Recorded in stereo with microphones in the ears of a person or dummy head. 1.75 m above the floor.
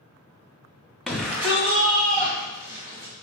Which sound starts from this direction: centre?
A shout, at 1.1 s.